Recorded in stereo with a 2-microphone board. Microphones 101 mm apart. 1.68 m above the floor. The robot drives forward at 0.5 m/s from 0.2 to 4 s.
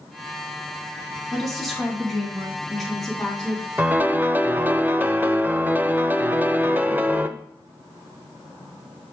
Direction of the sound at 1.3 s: Centre (ahead or behind).